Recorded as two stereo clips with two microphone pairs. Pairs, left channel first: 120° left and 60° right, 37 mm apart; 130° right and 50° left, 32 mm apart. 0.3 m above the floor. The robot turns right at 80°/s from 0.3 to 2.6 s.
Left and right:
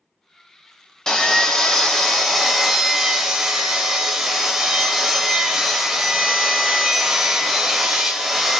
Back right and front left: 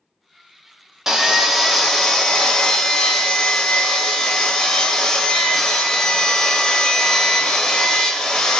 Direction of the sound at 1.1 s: 100° left.